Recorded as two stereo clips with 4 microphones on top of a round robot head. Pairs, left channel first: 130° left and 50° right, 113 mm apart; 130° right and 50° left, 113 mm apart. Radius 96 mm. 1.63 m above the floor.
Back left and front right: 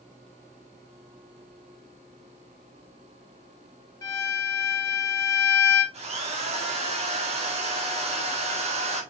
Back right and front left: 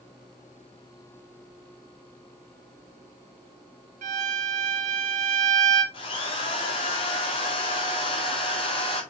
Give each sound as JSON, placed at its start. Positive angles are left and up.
{"t": 4.0, "sound": "a violin", "azimuth_deg": 65, "distance_m": 1.6}
{"t": 5.9, "sound": "a drill", "azimuth_deg": -85, "distance_m": 2.5}